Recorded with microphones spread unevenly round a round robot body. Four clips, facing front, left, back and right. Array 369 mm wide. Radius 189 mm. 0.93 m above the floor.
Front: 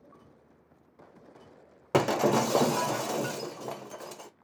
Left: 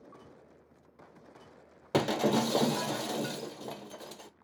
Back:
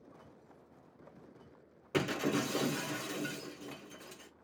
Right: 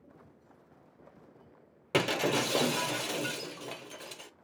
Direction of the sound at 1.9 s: 20° left.